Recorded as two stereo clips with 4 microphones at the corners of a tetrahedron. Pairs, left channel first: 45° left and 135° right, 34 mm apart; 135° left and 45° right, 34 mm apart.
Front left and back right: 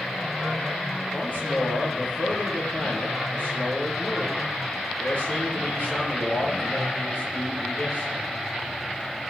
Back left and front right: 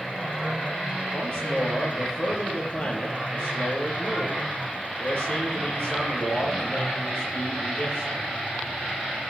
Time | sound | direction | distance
1.1 | a man speaking | 85° left | 4.5 m